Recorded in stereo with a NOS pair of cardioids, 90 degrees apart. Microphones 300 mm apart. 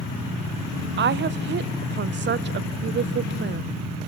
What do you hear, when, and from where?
1.0 s a woman speaking: 40° right, 0.6 m